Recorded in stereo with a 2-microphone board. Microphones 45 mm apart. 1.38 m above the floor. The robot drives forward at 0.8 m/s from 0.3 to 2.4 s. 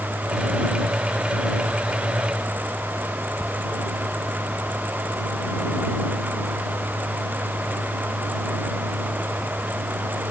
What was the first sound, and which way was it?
Only background noise.